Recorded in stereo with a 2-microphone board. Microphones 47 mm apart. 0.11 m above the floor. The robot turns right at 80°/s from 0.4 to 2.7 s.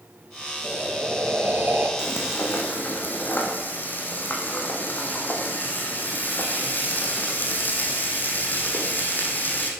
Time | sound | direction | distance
0.6 | breathing | 160° right | 2.5 m
2.0 | frying | 80° left | 3 m